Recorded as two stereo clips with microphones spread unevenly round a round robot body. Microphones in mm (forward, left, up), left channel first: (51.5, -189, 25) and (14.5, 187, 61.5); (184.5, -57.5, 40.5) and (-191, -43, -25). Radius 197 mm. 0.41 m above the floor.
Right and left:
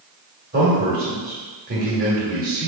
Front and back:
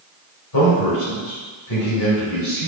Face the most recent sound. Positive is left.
turn(degrees=35)